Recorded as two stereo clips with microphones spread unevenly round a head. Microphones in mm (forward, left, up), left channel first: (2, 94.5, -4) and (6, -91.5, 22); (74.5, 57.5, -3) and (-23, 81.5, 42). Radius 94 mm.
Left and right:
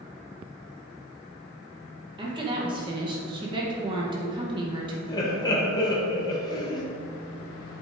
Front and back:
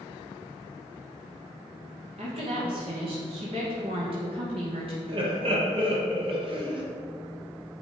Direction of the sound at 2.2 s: 150° right.